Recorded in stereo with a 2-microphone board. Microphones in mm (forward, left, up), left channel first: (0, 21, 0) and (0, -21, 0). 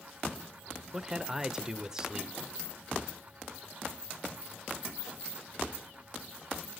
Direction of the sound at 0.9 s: 10° right (ahead or behind).